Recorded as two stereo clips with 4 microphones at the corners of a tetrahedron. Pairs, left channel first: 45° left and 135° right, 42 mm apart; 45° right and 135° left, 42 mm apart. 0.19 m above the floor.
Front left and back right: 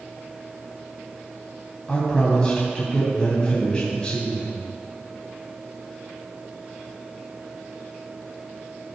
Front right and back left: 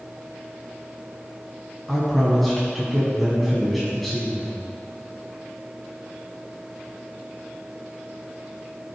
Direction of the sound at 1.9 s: 40° left.